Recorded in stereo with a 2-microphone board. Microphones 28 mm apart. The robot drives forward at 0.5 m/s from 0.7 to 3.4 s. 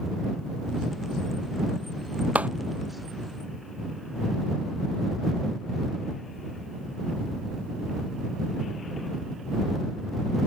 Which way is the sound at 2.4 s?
65° right (ahead or behind).